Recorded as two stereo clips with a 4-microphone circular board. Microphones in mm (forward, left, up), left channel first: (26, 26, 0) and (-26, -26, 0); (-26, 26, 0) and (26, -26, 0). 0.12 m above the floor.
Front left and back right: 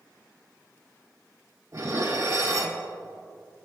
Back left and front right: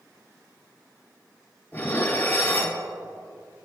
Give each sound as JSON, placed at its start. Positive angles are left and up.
{"t": 1.7, "sound": "dishes clattering", "azimuth_deg": -165, "distance_m": 1.9}